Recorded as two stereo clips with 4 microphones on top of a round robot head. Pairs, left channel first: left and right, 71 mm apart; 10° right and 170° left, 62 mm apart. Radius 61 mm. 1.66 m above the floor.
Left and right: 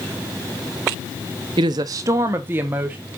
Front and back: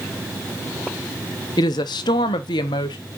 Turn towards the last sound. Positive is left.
turn(degrees=-15)